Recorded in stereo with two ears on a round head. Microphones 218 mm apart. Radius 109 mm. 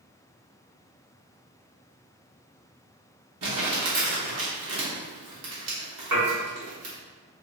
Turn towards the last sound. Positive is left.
turn(degrees=-85)